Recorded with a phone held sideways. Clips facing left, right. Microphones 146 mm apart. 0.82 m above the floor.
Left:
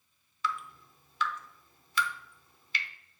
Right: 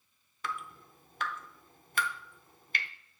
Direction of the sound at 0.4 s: 50° right (ahead or behind).